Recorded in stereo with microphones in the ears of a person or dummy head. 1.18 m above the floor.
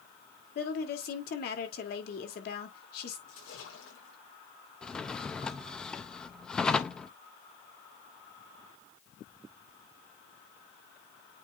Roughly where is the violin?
I don't hear a violin.